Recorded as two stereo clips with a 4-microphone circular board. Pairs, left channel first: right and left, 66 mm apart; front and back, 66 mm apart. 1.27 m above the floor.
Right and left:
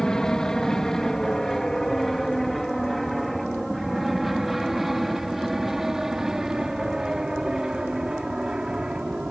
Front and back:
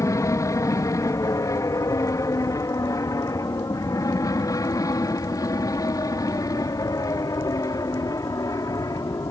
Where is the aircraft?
10° right; by 9.3 s 10° left.